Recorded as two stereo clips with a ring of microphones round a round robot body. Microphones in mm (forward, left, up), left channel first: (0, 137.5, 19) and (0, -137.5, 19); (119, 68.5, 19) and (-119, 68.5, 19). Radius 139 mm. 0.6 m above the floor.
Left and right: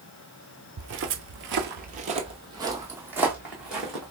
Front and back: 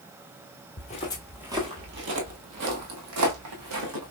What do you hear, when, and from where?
0.8 s footsteps: 50° right, 0.9 m; by 4.1 s straight behind, 2 m